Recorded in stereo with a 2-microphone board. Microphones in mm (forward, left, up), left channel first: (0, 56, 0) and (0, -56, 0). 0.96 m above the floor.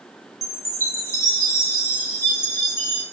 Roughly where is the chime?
Left.